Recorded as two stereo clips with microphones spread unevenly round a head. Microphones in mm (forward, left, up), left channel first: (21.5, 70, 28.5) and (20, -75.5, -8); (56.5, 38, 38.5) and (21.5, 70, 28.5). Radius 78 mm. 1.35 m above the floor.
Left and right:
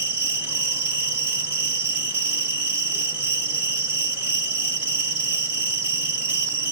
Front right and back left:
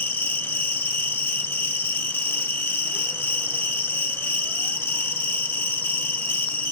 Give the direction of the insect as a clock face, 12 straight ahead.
12 o'clock.